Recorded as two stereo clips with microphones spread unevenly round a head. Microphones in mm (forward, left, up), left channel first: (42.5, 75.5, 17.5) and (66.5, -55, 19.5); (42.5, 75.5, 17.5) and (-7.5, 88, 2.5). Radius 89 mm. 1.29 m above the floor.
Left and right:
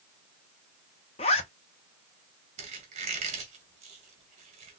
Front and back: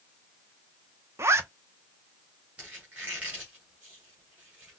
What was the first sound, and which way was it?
A zipper, 150° left.